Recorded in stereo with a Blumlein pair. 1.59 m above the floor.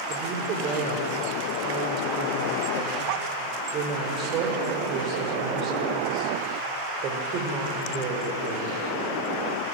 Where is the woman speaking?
35° right, 5 m.